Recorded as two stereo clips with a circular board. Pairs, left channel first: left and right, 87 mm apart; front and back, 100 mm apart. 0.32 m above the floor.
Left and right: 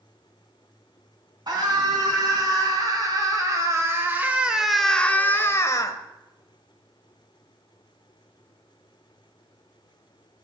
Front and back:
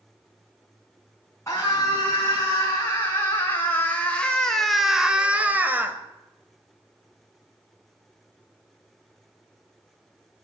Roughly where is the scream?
Ahead right.